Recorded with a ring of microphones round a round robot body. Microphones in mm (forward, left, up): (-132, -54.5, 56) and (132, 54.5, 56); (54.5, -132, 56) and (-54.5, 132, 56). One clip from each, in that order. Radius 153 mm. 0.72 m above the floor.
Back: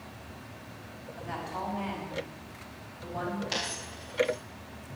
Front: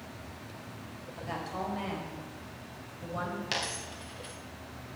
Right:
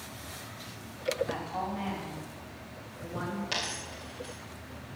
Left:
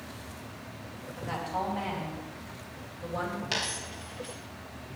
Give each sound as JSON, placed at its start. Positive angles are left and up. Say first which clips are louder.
{"t": 1.2, "sound": "a woman speaking", "louder": "even, even", "azimuth_deg": 55, "distance_m": 4.0}
{"t": 3.5, "sound": "a dropped coin", "louder": "even, left 1 dB", "azimuth_deg": 30, "distance_m": 3.0}